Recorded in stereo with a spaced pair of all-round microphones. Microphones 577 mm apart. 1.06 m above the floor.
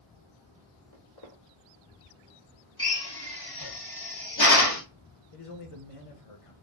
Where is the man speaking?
70° left (ahead or behind), 0.9 m.